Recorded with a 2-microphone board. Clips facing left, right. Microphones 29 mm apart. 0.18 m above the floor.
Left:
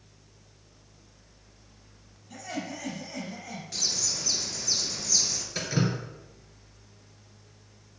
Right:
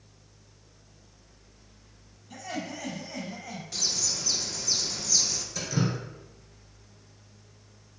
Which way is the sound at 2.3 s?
10° right (ahead or behind).